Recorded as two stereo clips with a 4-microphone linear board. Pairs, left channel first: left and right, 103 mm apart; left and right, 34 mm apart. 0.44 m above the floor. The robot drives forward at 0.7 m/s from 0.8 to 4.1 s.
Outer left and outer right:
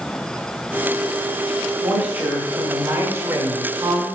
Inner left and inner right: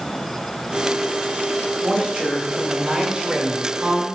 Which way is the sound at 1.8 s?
15° right (ahead or behind).